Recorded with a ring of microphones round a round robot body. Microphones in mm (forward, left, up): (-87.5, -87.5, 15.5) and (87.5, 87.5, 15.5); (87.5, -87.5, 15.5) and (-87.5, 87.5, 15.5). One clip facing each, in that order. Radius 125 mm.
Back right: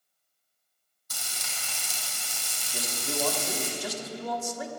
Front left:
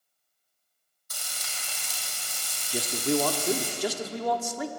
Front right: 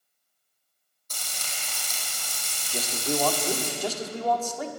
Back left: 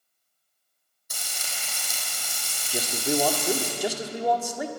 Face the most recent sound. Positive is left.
turn(degrees=60)